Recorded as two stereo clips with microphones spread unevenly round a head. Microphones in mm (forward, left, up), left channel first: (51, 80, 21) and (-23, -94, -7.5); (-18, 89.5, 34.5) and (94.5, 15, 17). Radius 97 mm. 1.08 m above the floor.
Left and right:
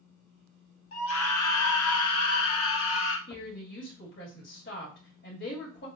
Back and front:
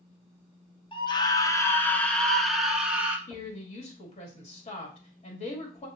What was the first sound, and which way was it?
A scream, 90° left.